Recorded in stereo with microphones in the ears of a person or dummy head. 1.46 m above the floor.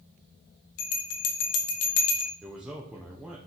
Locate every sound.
0.8 s a bell: 50° left (ahead or behind), 0.7 m
2.4 s a man speaking: 5° right (ahead or behind), 0.7 m